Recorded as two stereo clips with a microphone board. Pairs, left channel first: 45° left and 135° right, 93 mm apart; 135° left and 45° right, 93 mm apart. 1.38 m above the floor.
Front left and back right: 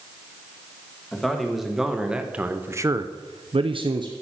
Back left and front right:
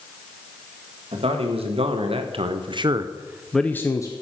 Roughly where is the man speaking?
Ahead right.